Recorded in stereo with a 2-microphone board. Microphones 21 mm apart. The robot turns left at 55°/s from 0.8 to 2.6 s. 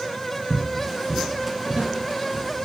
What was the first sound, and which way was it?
Footsteps, 20° left (ahead or behind).